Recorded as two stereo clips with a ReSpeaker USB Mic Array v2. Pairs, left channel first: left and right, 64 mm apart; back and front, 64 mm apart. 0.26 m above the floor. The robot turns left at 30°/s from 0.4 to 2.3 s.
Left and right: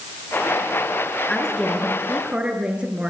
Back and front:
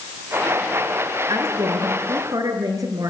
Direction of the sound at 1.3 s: 10° left.